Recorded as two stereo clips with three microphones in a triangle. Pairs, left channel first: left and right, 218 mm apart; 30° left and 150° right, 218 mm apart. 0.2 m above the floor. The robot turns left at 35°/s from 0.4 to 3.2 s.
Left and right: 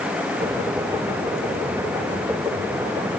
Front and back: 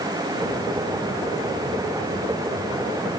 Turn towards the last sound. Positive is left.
No sound to turn to.